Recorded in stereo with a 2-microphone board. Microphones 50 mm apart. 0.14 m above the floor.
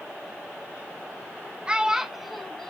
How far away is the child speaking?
About 1.0 m.